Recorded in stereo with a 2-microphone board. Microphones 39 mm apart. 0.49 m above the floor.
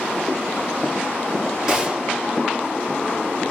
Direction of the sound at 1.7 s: 10° right (ahead or behind).